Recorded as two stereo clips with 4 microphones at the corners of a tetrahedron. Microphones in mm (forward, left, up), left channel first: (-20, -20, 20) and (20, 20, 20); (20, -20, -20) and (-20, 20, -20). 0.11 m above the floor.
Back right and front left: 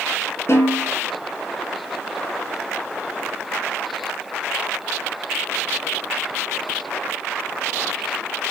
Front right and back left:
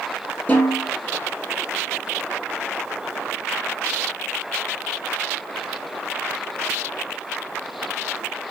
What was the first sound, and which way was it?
A snare drum, 100° right.